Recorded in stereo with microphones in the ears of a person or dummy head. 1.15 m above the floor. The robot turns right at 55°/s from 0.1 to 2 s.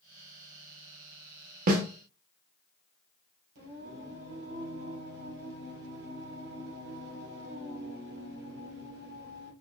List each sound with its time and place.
1.7 s a snare drum: 50° right (ahead or behind), 0.8 m; by 1.8 s 55° right (ahead or behind), 0.8 m
3.5 s singing: 70° right (ahead or behind), 3.5 m